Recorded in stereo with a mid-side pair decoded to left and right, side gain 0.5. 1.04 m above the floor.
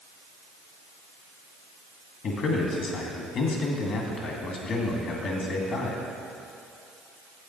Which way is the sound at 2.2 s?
60° left.